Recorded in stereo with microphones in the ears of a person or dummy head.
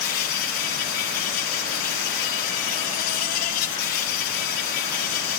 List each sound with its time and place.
0.0 s an insect: 45° left (ahead or behind), 1.4 m